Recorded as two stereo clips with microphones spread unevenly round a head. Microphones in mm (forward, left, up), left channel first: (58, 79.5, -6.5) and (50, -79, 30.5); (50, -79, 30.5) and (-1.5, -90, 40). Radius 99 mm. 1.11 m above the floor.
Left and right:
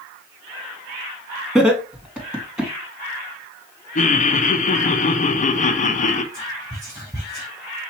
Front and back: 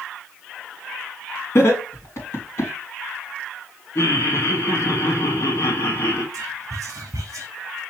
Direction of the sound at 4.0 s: 55° left.